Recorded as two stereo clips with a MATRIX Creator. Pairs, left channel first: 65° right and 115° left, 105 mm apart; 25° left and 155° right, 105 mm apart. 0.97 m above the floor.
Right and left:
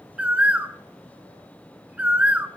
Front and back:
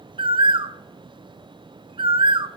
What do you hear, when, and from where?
0.2 s a bird: 170° right, 0.6 m